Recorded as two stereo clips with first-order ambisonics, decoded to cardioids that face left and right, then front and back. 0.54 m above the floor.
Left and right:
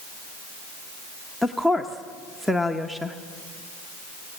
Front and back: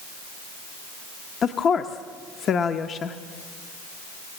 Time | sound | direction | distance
1.4 | a woman speaking | 5° right | 0.7 m